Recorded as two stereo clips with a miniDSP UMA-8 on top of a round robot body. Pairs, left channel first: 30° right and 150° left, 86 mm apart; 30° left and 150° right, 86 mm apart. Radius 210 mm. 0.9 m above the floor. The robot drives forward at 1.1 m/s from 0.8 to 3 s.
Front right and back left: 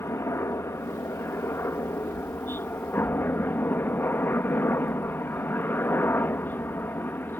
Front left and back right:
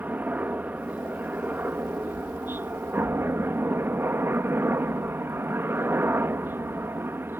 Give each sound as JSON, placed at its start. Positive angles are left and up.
{"t": 0.0, "sound": "a helicopter", "azimuth_deg": -85}